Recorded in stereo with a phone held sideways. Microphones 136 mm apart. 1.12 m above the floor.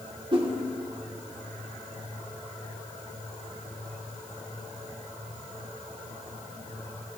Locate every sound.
0.3 s a whoosh: 40° right (ahead or behind), 2.0 m